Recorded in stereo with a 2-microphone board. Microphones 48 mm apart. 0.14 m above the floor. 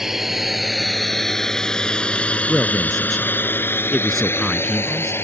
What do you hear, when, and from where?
0.0 s a drone: 10° right (ahead or behind); by 5.2 s 55° left (ahead or behind)
2.5 s a man speaking: 5° left (ahead or behind)